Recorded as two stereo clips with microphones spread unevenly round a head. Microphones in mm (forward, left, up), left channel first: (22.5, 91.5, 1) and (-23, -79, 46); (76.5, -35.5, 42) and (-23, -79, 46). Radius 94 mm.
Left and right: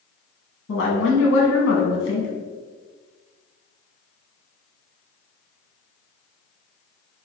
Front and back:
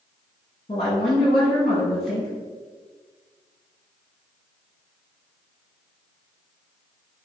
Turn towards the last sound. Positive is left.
turn(degrees=85)